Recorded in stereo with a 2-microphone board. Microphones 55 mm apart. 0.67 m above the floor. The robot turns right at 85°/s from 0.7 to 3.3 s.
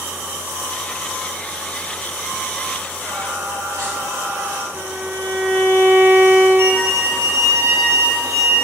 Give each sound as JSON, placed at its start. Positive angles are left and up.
{"t": 3.0, "sound": "singing", "side_deg": -35, "distance_m": 5.5}
{"t": 4.7, "sound": "a violin", "side_deg": -65, "distance_m": 2.0}
{"t": 6.6, "sound": "a violin", "side_deg": -55, "distance_m": 2.5}